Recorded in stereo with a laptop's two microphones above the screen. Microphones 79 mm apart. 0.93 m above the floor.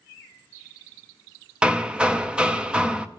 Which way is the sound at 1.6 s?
15° right (ahead or behind).